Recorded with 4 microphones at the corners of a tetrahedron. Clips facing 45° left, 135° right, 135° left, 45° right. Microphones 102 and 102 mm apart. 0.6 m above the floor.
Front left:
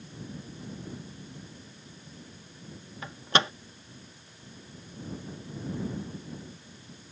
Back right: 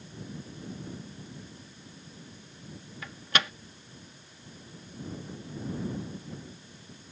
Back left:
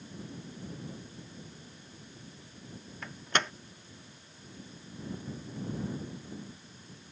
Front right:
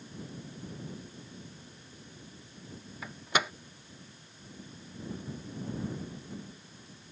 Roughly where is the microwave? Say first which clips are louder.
Front left 4 dB, front right 1 dB; ahead left.